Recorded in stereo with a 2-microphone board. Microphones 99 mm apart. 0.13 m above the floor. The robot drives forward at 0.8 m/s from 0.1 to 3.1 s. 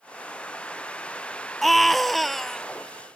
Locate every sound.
1.6 s a scream: centre (ahead or behind)